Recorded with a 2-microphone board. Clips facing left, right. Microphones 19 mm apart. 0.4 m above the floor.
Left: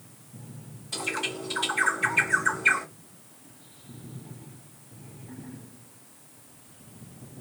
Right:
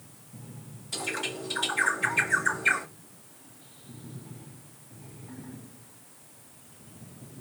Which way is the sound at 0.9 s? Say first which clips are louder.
Left 2 dB; 5° left (ahead or behind).